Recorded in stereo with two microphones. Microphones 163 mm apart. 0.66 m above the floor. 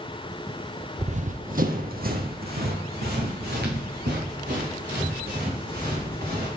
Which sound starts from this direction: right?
Running footsteps, at 1.0 s.